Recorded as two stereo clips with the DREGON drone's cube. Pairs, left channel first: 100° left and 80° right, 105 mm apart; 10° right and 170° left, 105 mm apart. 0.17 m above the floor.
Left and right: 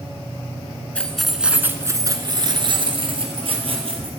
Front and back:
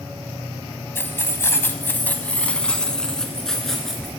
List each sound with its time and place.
0.9 s keys jangling: 35° left, 0.8 m; by 4.1 s 100° right, 2 m